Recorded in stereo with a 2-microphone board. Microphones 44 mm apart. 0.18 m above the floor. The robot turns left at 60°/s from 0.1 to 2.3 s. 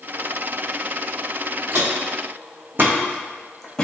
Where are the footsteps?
55° right (ahead or behind), 1.2 m; by 3.9 s 15° left (ahead or behind), 0.8 m.